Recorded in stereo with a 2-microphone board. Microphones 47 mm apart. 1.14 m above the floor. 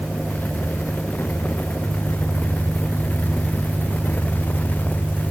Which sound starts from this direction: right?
An engine running, at 0.0 s.